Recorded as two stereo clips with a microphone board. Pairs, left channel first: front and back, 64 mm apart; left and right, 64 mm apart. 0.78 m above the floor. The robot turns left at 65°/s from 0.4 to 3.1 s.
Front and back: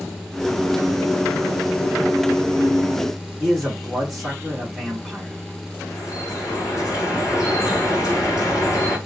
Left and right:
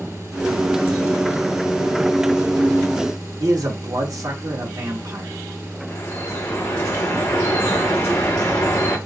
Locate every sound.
3.4 s a man speaking: 90° right, 1.8 m
5.9 s dripping: 35° left, 3.5 m